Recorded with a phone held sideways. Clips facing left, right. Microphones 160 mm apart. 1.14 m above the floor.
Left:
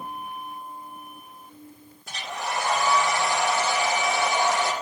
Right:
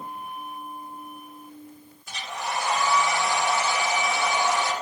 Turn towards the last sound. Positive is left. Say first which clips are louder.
# left 1 dB
turn(degrees=75)  # may be behind; listen again after turning